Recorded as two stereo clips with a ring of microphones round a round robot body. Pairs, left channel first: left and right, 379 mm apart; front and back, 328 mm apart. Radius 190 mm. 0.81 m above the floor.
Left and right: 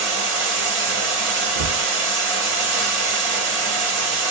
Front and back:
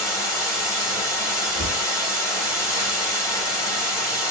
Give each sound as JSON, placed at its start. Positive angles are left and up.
{"t": 0.0, "sound": "running water", "azimuth_deg": -80, "distance_m": 1.3}
{"t": 1.6, "sound": "a cupboard door", "azimuth_deg": -70, "distance_m": 0.9}